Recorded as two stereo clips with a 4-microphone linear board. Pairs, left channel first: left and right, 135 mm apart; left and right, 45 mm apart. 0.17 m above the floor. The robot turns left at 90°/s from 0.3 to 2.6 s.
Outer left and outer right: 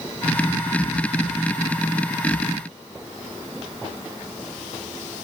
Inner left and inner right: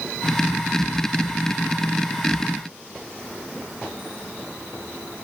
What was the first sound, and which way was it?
Only background noise.